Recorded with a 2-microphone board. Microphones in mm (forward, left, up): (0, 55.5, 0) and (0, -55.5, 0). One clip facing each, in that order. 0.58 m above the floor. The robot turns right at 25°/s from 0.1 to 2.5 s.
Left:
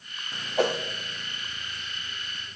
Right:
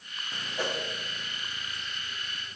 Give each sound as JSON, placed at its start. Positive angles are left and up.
{"t": 0.6, "sound": "a whoosh", "side_deg": 70, "distance_m": 1.2}